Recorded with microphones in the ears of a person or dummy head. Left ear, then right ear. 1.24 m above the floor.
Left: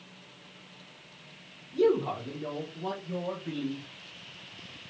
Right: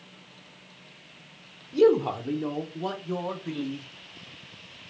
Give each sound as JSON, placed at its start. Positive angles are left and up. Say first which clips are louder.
{"t": 1.7, "sound": "a man speaking", "louder": "right 5 dB", "side_deg": -85, "distance_m": 0.7}